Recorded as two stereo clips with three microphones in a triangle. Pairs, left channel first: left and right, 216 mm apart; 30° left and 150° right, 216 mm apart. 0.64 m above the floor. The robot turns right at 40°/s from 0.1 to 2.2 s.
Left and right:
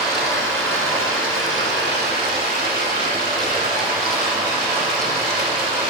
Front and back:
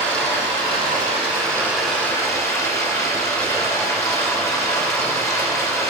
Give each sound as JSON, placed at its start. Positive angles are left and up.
{"t": 0.0, "sound": "running water", "azimuth_deg": -130, "distance_m": 1.4}